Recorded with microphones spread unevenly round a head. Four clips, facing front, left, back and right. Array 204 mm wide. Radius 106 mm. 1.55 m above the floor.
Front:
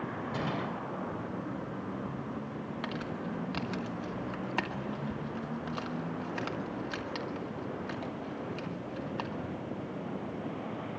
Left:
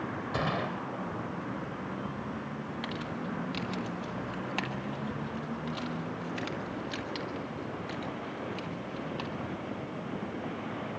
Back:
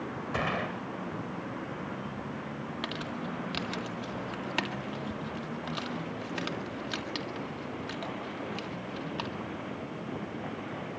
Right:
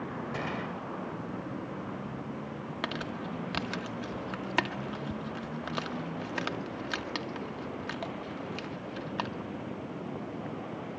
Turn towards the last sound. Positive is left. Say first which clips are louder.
# right 3 dB, even
turn(degrees=-105)